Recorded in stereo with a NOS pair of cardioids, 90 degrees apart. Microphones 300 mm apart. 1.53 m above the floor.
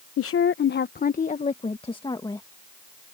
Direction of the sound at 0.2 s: 50° left.